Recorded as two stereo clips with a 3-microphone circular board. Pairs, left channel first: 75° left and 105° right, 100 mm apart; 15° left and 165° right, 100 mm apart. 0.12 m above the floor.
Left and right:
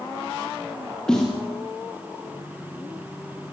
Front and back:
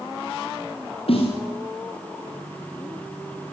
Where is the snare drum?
10° right, 7 m.